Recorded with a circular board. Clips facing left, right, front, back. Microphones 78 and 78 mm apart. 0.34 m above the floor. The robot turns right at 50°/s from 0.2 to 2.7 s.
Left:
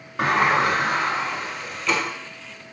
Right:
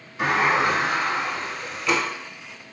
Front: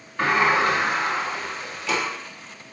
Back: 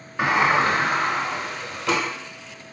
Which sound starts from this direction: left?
A sliding door, at 0.2 s.